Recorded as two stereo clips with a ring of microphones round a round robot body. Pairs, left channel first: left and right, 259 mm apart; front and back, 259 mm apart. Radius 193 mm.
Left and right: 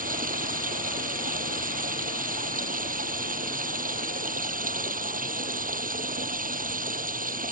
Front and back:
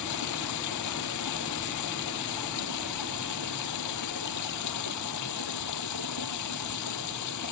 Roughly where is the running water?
Ahead right.